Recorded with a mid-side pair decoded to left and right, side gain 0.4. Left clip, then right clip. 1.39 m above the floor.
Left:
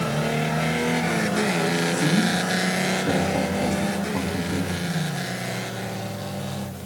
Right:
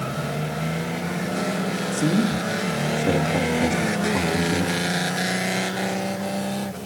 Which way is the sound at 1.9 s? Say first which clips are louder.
Left 1 dB; 35° right.